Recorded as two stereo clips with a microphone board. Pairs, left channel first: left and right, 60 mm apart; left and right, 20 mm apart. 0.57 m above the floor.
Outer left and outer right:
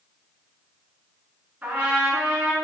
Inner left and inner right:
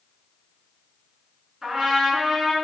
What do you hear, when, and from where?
1.6 s a trumpet: 30° right (ahead or behind), 1.1 m